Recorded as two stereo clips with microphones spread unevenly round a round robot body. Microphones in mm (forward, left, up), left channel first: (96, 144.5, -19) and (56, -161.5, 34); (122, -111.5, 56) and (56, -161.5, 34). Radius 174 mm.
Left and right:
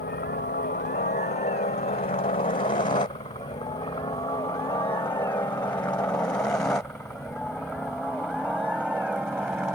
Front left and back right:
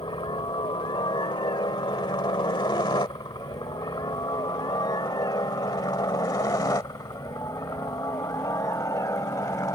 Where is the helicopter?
30° left; by 9.8 s 10° right.